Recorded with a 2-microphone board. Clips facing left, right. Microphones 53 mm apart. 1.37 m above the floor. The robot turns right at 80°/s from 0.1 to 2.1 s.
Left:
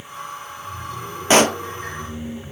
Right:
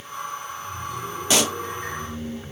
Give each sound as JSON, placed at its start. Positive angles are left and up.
{"t": 1.3, "sound": "a pop", "side_deg": 40}